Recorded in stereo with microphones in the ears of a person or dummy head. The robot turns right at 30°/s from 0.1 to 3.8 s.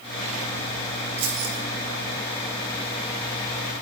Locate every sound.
1.2 s keys jangling: 85° right, 1.7 m; by 1.6 s 80° right, 1.7 m